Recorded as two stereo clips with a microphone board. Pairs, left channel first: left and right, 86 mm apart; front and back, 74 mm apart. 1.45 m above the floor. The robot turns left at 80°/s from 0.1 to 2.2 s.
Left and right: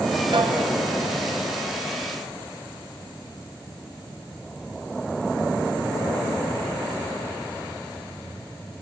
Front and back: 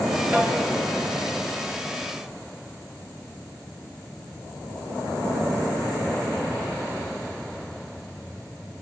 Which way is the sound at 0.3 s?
110° right.